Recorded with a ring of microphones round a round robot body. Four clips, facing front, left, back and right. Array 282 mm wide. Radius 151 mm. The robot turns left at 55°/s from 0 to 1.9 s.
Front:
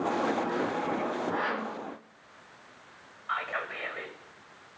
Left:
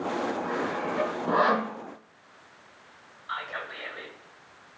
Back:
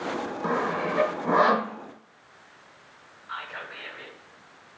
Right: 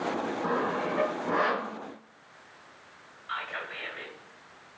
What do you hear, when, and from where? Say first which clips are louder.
0.4 s sawing: right 1 dB, back 3 dB; 155° right, 0.7 m; by 1.8 s 135° left, 0.7 m
3.3 s whispering: left 1 dB, front 4 dB; 20° left, 2 m